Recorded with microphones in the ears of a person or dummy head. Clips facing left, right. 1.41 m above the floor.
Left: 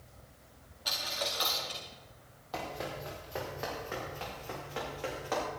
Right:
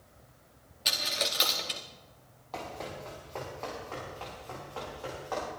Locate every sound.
0.8 s a dropped coin: 30° right (ahead or behind), 1.0 m
2.5 s running footsteps: 10° left (ahead or behind), 4 m; by 5.4 s 30° left (ahead or behind), 7 m